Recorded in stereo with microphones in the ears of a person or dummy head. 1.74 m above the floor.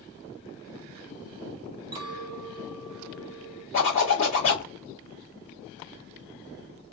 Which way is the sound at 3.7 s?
40° left (ahead or behind).